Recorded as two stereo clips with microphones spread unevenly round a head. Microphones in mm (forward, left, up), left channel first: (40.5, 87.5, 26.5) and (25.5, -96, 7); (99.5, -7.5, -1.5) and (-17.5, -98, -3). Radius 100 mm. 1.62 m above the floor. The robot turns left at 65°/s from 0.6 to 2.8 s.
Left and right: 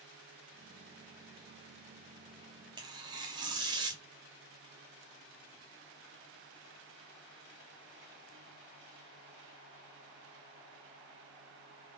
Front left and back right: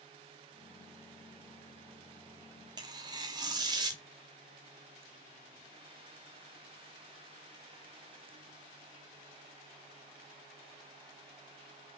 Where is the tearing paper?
145° right, 0.5 m.